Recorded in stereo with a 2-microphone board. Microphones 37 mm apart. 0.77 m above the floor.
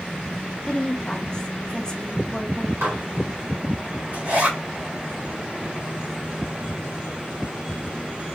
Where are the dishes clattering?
80° right, 2 m.